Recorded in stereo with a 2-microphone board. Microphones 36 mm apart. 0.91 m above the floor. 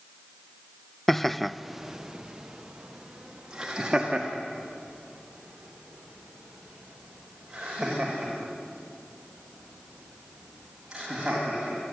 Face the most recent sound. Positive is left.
turn(degrees=-20)  # may be behind; listen again after turning